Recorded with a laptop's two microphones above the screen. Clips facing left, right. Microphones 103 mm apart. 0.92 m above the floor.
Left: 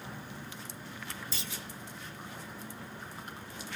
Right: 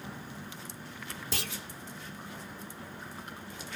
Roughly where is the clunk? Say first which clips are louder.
Right 5 dB; right.